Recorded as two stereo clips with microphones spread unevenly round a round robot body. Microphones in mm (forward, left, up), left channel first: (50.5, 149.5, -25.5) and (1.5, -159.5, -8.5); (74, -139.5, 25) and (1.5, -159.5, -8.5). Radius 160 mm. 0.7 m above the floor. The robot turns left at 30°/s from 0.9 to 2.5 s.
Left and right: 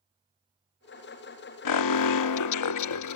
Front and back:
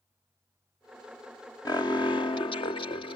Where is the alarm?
85° left; by 3.2 s 60° left.